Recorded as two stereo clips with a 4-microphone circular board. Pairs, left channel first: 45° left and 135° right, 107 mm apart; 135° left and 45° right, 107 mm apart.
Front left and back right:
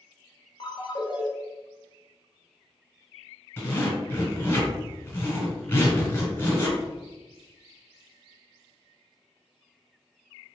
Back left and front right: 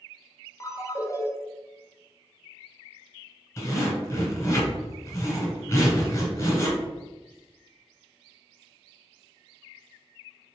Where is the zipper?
100° left, 1.4 m.